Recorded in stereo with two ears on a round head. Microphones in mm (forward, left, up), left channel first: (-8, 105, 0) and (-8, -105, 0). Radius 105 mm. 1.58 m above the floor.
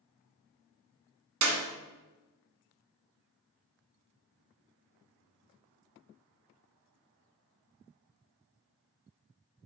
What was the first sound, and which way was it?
A clap, 60° right (ahead or behind).